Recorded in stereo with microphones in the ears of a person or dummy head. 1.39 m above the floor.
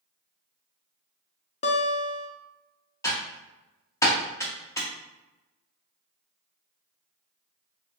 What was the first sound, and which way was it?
A guitar, 35° left (ahead or behind).